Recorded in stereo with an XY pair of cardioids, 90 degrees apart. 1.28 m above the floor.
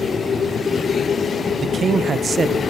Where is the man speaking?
45° right, 0.8 m.